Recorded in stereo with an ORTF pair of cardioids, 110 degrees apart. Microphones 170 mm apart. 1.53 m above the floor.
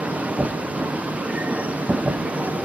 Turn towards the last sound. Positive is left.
turn(degrees=-5)